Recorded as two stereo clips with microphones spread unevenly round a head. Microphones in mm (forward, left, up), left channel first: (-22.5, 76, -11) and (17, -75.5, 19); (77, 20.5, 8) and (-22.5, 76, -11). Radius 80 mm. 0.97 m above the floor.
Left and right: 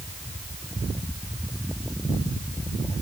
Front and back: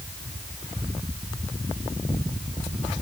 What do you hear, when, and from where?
Only background noise.